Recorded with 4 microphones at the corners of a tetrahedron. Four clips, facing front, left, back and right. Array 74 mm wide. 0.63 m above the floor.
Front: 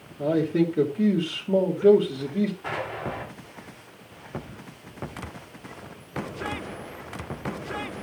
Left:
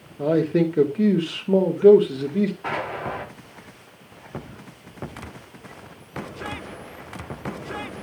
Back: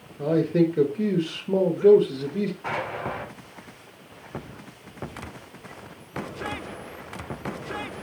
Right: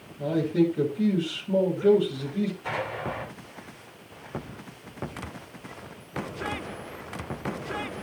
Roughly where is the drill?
No drill in this recording.